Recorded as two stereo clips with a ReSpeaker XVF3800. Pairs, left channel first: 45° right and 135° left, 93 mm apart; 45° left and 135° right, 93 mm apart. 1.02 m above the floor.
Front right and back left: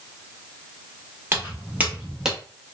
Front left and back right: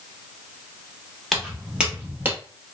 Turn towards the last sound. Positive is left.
turn(degrees=-150)